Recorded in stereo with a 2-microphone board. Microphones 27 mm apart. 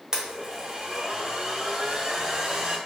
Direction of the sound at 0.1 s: 30° right (ahead or behind).